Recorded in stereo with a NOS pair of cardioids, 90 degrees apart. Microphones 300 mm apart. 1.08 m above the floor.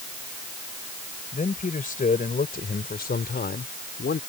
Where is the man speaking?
25° left; by 4.2 s 35° left.